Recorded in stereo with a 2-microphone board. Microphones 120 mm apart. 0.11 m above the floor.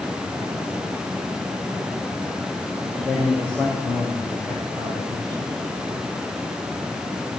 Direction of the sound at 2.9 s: 20° left (ahead or behind).